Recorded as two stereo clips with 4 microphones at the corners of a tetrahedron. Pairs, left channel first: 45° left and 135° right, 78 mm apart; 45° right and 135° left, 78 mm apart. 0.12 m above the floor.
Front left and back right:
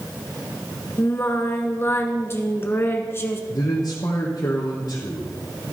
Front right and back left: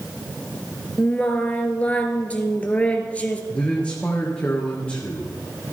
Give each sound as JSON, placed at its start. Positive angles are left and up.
{"t": 1.0, "sound": "singing", "azimuth_deg": 15, "distance_m": 1.1}
{"t": 3.5, "sound": "a man speaking", "azimuth_deg": 30, "distance_m": 2.5}